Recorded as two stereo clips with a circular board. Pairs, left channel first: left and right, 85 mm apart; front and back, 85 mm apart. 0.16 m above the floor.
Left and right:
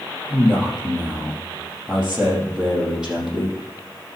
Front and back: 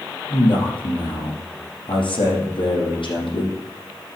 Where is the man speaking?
5° right, 6 m.